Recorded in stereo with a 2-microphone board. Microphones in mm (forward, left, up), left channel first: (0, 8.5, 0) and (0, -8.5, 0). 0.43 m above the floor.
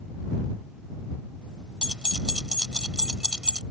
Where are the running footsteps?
I don't hear running footsteps.